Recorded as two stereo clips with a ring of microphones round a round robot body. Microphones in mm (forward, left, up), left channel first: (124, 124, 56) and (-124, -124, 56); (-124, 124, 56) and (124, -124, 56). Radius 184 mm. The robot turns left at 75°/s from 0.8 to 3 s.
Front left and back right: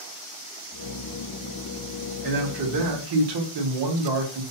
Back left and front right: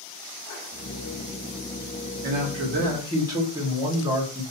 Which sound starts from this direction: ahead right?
A man speaking, at 2.2 s.